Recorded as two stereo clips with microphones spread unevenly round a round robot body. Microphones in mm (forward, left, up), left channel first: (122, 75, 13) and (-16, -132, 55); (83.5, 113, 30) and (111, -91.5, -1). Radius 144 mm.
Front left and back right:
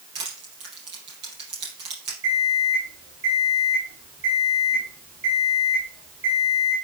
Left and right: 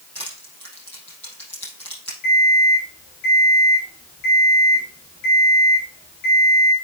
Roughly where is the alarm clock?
Behind left.